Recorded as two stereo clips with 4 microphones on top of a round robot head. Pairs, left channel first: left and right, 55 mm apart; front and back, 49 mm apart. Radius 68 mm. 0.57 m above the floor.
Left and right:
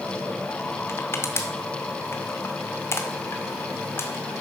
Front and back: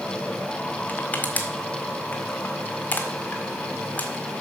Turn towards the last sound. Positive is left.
turn(degrees=55)